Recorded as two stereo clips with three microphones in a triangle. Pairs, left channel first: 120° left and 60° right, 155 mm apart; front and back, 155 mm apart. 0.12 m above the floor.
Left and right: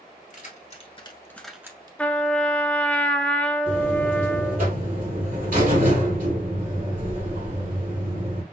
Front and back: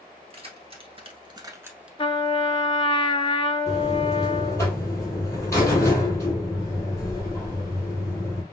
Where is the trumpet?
40° left, 0.6 m.